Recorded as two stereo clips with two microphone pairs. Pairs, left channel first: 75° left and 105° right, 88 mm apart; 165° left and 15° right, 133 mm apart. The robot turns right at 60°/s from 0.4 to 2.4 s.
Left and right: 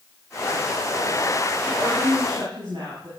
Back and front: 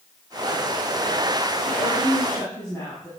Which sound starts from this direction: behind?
A woman speaking, at 1.7 s.